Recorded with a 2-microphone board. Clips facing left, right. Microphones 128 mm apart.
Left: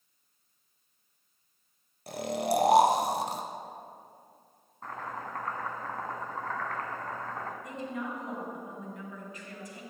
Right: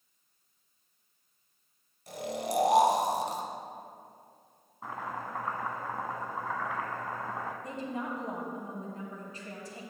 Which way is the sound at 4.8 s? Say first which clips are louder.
Right 1 dB; 10° right (ahead or behind).